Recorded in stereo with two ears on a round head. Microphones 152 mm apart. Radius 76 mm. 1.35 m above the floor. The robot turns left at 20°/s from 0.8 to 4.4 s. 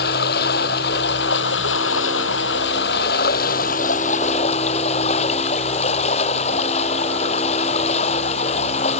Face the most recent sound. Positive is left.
turn(degrees=40)